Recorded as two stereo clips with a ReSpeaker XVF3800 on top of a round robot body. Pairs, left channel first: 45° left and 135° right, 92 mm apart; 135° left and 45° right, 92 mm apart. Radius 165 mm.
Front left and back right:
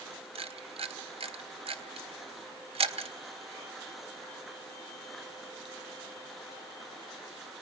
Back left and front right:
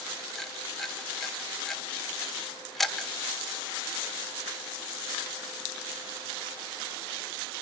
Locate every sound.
0.3 s a camera shutter: 140° right, 1.6 m